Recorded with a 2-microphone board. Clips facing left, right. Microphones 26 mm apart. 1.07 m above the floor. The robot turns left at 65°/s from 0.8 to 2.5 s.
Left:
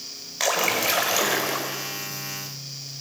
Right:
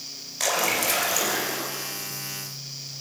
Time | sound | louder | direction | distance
0.4 | a splash | left 2 dB | 160° left | 5.5 m